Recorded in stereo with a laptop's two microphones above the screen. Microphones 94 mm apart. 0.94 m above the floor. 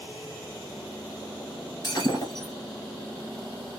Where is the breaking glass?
45° left (ahead or behind), 1.6 m.